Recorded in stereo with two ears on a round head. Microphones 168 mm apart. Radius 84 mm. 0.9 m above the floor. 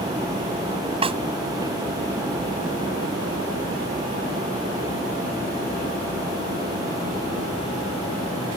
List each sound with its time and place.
1.0 s a snare drum: 30° right (ahead or behind)